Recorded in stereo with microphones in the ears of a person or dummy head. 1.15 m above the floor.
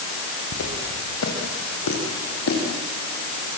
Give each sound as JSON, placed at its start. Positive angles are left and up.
{"t": 0.5, "sound": "footsteps", "side_deg": 80, "distance_m": 6.0}